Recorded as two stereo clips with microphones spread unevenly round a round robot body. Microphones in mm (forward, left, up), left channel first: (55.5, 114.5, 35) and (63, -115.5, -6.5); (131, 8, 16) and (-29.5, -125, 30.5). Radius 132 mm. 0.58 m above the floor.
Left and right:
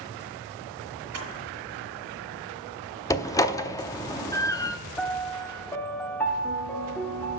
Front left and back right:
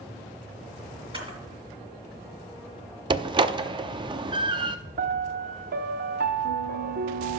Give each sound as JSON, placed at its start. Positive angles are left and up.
{"t": 1.1, "sound": "a camera shutter", "azimuth_deg": -75, "distance_m": 5.5}
{"t": 3.1, "sound": "a door slam", "azimuth_deg": 175, "distance_m": 0.6}
{"t": 5.0, "sound": "a piano", "azimuth_deg": 180, "distance_m": 0.8}